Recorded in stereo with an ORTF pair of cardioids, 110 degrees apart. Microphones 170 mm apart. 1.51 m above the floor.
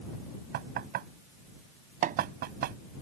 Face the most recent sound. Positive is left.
turn(degrees=-55)